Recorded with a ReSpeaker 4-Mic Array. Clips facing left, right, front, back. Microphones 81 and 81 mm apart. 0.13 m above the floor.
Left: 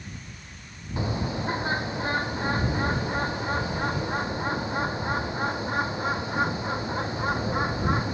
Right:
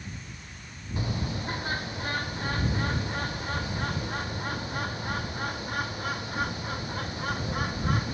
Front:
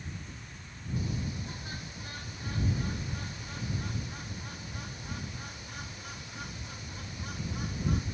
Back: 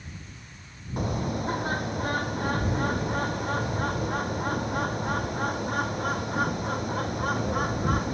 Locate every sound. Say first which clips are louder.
1.0 s a bird: left 4 dB, back 8 dB; 155° left